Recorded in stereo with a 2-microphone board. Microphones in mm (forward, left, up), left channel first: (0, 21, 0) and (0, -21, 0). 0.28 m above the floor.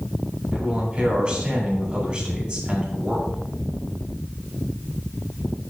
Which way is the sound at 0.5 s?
20° right (ahead or behind).